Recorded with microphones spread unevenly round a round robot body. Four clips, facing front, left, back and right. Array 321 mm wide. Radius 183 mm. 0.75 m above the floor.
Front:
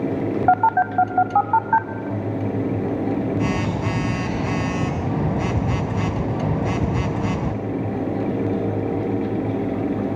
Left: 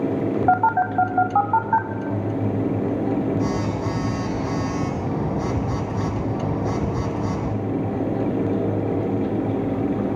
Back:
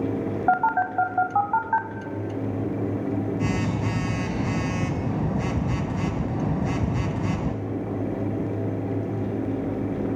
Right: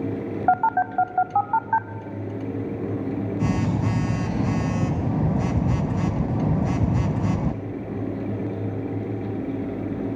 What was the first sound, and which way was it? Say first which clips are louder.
A phone buzzing: left 1 dB, front 4 dB; 100° right.